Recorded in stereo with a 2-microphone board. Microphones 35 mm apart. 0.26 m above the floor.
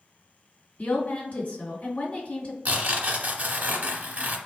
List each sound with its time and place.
0.8 s a woman speaking: 55° left (ahead or behind), 1.9 m
2.6 s tearing paper: 50° right (ahead or behind), 0.7 m